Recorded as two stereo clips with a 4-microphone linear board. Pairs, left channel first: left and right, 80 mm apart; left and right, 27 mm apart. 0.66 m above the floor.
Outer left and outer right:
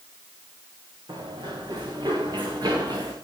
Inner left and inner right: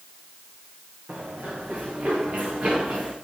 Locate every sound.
1.1 s running footsteps: 75° right (ahead or behind), 4 m; by 3.1 s 55° right (ahead or behind), 4 m